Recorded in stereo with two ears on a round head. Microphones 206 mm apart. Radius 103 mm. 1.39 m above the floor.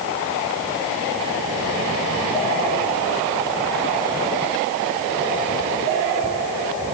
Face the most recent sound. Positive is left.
No sound to turn to.